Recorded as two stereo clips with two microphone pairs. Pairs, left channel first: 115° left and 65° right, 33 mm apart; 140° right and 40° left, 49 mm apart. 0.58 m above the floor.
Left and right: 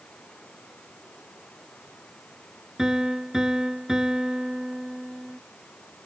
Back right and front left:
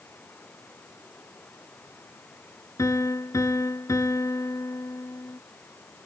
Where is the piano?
140° right.